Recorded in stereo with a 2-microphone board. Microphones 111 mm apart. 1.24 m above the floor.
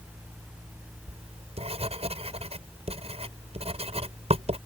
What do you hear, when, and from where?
1.1 s writing: 85° right